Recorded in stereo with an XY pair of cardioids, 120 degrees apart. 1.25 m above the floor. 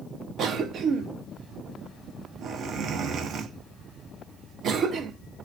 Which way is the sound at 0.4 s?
60° right.